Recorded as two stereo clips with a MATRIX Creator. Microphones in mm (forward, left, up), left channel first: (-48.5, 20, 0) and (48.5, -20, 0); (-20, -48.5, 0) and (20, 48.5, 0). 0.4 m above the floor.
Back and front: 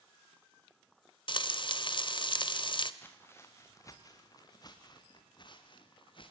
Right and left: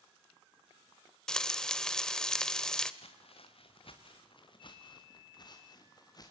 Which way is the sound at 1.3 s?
165° left.